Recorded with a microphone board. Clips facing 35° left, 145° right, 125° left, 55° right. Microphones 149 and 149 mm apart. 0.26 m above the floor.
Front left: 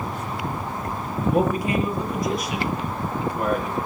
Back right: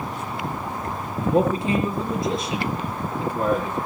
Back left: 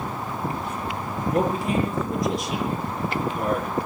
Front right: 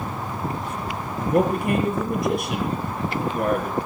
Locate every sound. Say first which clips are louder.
1.2 s a man speaking: back right 1 dB, front right 3 dB; 85° right, 6 m